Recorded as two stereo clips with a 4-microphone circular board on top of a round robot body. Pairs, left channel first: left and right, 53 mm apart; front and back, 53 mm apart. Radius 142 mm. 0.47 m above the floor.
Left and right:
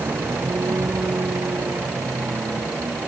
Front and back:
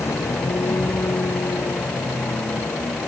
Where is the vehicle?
35° right; by 3.1 s 40° right.